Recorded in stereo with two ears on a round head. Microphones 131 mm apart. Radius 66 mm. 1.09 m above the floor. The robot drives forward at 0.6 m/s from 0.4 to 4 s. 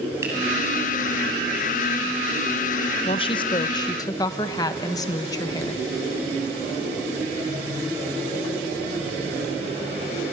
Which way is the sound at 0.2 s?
20° right (ahead or behind).